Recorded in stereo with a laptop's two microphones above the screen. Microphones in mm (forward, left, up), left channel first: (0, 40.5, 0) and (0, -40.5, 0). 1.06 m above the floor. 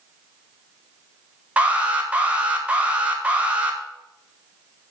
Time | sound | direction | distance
1.6 | an alarm | 15° right (ahead or behind) | 1.0 m